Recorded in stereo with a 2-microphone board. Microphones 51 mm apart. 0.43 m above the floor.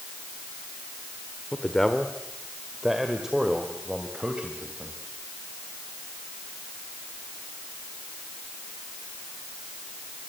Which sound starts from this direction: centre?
A man speaking, at 1.5 s.